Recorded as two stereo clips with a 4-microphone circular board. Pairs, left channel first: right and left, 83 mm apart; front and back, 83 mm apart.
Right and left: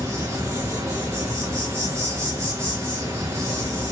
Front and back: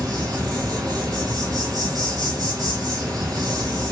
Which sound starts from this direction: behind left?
An insect, at 0.0 s.